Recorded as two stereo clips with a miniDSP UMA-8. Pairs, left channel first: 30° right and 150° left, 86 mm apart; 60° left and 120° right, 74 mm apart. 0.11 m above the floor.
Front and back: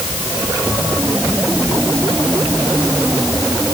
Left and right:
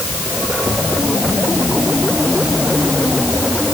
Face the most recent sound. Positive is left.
No sound to turn to.